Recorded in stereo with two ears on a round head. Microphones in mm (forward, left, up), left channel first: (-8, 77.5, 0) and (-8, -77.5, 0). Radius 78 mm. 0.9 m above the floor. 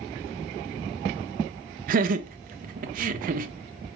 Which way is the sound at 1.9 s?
50° right (ahead or behind).